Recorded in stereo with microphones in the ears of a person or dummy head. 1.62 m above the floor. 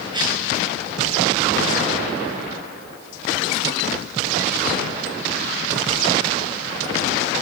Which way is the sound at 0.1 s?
25° right (ahead or behind).